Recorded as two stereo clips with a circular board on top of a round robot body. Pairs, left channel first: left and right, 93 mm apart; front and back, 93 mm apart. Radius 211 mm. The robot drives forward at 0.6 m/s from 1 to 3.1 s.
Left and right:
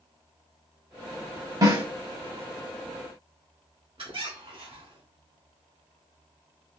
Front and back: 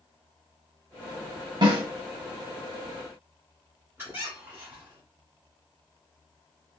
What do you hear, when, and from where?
1.6 s a snare drum: 140° right, 1.2 m; by 1.8 s 145° right, 1.3 m
4.0 s a squeak: 115° right, 1.4 m